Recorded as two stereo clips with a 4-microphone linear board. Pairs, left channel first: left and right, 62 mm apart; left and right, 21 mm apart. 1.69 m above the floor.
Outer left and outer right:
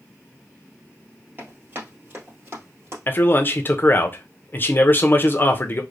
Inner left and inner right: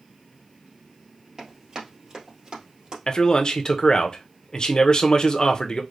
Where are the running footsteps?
35° right (ahead or behind), 2 m; by 3.0 s 45° right (ahead or behind), 2.5 m.